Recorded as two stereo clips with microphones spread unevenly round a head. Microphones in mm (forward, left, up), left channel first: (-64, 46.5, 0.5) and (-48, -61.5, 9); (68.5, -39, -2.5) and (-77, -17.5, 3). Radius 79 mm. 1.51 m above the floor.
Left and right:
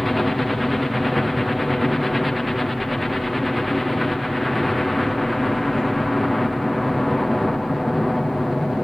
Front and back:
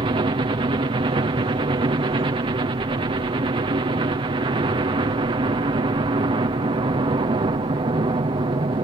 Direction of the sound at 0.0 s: 175° right.